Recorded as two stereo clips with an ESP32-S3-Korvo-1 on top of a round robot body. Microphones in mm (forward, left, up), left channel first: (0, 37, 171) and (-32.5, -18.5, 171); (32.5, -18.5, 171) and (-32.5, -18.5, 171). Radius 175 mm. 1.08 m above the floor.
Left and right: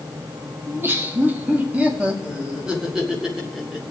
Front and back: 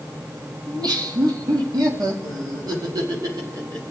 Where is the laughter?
175° right, 2.0 m; by 3.8 s 155° left, 3.5 m.